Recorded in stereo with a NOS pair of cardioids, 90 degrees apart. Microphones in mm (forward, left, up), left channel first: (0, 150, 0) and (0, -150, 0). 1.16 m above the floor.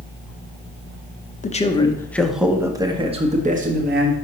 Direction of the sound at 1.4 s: 25° left.